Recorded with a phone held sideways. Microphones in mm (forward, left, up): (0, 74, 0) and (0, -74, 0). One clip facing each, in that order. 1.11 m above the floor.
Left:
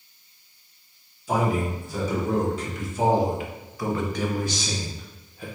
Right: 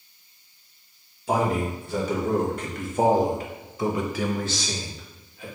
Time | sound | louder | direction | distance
1.3 | a man speaking | even | 70° right (ahead or behind) | 1.6 m